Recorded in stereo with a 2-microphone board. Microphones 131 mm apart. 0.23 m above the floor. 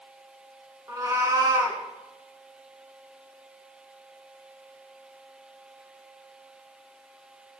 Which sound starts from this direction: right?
A cat meowing, at 0.9 s.